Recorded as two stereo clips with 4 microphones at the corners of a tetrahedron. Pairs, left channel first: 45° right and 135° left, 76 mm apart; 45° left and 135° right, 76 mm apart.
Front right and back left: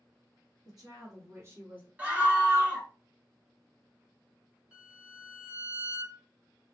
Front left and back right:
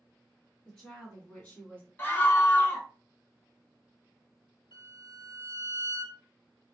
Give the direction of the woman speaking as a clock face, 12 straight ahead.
8 o'clock.